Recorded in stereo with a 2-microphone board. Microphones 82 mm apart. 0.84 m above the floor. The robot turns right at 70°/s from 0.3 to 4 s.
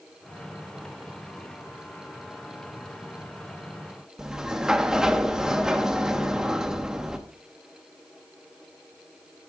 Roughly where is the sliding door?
Centre.